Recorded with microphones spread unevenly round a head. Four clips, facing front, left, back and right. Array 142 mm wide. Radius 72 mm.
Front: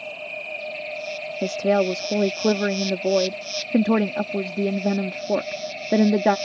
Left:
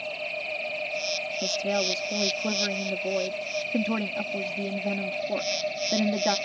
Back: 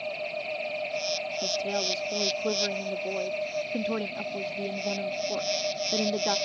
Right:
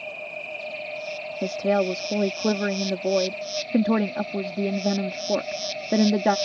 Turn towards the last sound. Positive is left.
turn(degrees=-20)